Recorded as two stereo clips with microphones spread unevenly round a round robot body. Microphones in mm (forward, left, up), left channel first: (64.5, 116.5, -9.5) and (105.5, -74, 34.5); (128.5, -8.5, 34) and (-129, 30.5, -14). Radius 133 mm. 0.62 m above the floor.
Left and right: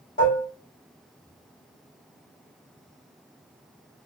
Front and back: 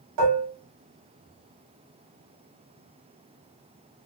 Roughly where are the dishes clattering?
Behind.